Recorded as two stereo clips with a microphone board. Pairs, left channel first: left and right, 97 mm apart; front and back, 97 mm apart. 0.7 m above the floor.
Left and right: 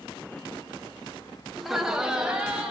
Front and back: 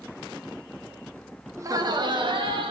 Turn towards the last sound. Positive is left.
turn(degrees=-170)